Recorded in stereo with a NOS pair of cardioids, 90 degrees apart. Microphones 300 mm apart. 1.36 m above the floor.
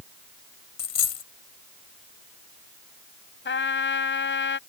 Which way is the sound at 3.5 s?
40° left.